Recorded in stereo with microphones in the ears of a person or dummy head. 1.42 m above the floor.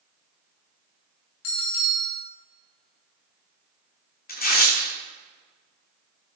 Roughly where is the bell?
Left.